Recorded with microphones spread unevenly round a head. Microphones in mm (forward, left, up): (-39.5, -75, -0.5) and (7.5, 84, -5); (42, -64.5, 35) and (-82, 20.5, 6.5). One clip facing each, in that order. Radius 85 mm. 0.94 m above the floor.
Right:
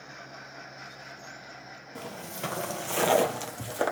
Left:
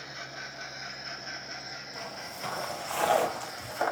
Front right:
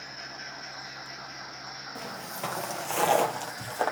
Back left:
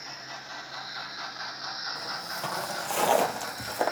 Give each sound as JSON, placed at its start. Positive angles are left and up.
{"t": 1.9, "sound": "footsteps", "azimuth_deg": -85, "distance_m": 1.5}